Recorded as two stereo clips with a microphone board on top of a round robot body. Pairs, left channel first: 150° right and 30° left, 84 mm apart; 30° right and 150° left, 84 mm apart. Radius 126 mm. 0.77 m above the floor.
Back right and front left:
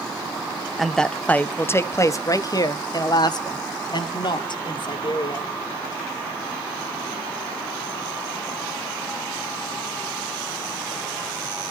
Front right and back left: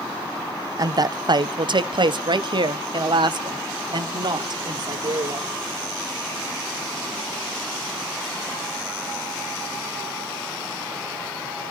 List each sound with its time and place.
0.8 s a woman speaking: 120° left, 0.9 m; by 5.5 s 175° right, 3 m